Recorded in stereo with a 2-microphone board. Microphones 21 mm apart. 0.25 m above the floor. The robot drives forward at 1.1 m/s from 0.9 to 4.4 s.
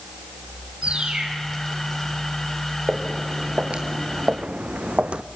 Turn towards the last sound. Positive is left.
turn(degrees=-75)  # may be behind; listen again after turning